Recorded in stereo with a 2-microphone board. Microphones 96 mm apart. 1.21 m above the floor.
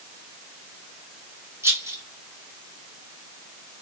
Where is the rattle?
30° right (ahead or behind), 2.5 m.